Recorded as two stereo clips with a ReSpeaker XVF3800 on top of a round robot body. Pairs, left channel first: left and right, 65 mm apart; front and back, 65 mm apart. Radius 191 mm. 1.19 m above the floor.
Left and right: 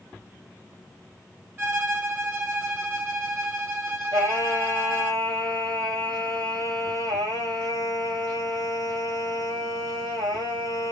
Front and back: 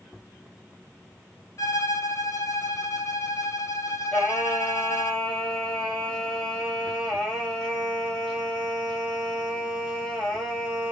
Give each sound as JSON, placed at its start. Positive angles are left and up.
{"t": 1.6, "sound": "a violin", "azimuth_deg": -35, "distance_m": 1.8}
{"t": 4.1, "sound": "singing", "azimuth_deg": -85, "distance_m": 2.0}